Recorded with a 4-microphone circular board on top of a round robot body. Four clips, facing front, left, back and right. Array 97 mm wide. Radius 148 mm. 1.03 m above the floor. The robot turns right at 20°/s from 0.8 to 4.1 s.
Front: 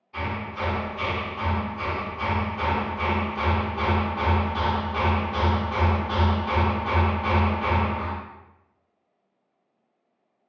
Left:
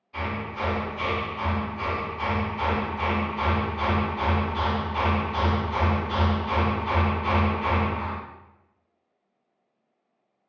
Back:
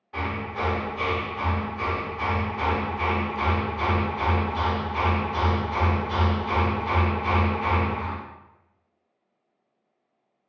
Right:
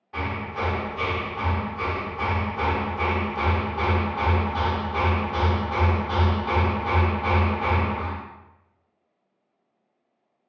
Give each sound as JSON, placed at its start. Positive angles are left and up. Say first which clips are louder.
{"t": 0.1, "sound": "hammering", "louder": "right 1 dB, back 1 dB", "azimuth_deg": -125, "distance_m": 0.5}